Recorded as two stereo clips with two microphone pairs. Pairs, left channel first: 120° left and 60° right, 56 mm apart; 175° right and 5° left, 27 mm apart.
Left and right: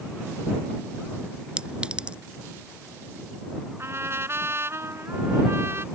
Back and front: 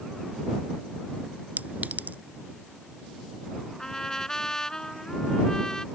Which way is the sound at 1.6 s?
10° left.